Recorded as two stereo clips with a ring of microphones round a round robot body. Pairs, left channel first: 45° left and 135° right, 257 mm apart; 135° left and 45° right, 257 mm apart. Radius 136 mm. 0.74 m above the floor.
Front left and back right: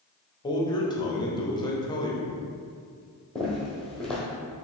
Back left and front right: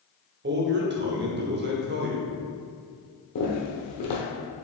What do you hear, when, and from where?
0.4 s a man speaking: 20° right, 0.8 m
3.4 s footsteps: 130° left, 1.1 m